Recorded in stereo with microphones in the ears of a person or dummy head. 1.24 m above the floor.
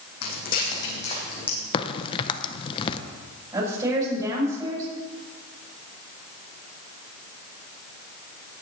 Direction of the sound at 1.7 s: 30° left (ahead or behind).